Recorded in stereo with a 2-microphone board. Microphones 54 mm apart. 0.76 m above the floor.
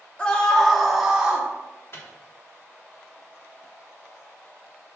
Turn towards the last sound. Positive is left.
turn(degrees=50)  # may be behind; listen again after turning